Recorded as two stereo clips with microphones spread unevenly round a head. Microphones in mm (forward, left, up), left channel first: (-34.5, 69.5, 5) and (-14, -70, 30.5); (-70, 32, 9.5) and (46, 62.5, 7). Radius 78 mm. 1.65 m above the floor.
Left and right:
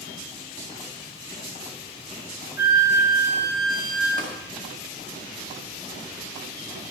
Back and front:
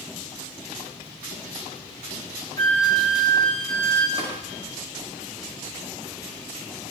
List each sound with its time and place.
2.6 s a flute: 5° right, 3 m
4.2 s tapping: 45° right, 5 m